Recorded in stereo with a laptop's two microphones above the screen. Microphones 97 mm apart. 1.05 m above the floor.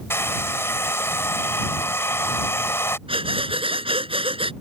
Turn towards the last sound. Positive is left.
turn(degrees=-70)  # may be behind; listen again after turning